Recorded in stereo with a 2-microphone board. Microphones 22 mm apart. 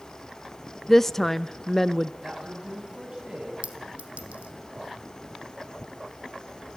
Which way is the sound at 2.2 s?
35° right (ahead or behind).